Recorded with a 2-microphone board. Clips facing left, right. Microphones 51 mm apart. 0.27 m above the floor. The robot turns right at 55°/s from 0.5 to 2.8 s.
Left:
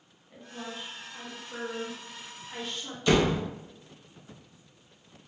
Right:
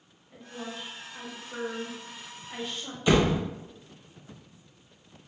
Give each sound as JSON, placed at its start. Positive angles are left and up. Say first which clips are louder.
{"t": 0.3, "sound": "a woman speaking", "louder": "right 1 dB", "side_deg": 15, "distance_m": 0.9}
{"t": 3.1, "sound": "a door slam", "louder": "right 1 dB", "side_deg": -15, "distance_m": 0.6}